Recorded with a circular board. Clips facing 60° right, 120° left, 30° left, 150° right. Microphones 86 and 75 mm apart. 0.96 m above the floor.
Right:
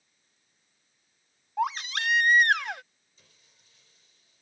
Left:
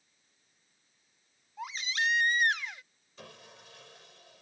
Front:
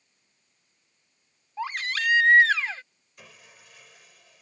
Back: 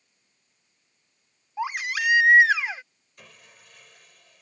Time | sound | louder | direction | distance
1.6 | a baby crying | right 6 dB, back 2 dB | 75° right | ?
3.2 | sawing | left 18 dB, even | 115° left | ?